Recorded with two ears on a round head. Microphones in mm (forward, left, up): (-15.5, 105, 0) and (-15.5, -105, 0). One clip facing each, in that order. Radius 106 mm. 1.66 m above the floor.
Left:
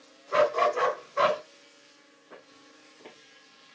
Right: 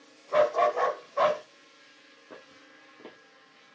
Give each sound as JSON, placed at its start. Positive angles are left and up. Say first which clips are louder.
{"t": 0.3, "sound": "a dog barking", "louder": "right 1 dB", "side_deg": 20, "distance_m": 2.0}
{"t": 2.3, "sound": "footsteps", "louder": "right 2 dB", "side_deg": -50, "distance_m": 3.0}